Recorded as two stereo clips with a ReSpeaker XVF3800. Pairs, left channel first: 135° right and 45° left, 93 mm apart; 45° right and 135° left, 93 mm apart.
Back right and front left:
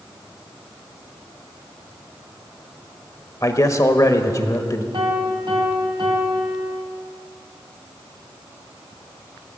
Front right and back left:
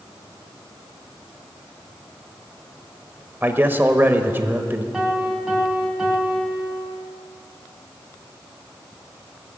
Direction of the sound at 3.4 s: 170° right.